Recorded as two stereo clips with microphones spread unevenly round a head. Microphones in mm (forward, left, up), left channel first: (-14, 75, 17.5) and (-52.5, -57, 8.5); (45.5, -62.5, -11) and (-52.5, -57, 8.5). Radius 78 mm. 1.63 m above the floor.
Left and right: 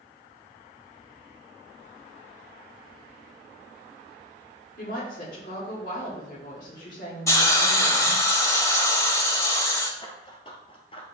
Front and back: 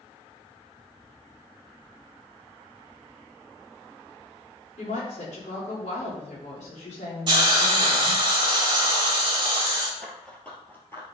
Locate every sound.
4.8 s a woman speaking: 35° left, 4 m
7.3 s a hiss: 140° left, 2.5 m
10.0 s running footsteps: 95° left, 1.9 m; by 11.1 s 70° left, 2 m